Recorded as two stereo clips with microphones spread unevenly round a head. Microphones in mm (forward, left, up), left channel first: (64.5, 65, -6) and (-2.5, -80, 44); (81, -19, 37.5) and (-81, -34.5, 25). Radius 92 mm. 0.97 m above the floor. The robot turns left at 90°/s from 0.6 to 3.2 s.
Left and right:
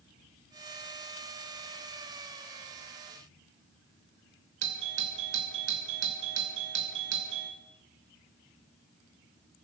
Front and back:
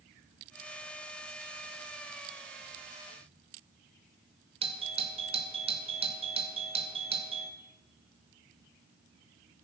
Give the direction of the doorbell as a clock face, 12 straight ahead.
4 o'clock.